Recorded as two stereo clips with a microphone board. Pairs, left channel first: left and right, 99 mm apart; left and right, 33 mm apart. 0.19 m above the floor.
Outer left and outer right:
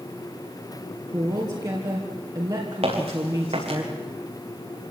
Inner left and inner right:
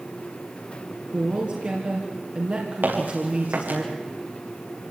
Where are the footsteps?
85° right, 7.5 m.